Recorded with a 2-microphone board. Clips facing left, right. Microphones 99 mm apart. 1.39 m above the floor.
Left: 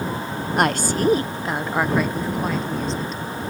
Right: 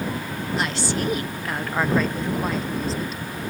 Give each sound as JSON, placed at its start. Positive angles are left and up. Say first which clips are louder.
{"t": 0.6, "sound": "a woman speaking", "louder": "left 6 dB", "side_deg": 60}